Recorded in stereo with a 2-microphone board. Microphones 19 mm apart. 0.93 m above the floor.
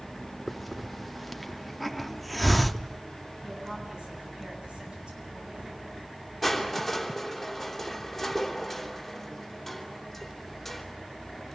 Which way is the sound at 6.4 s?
Centre (ahead or behind).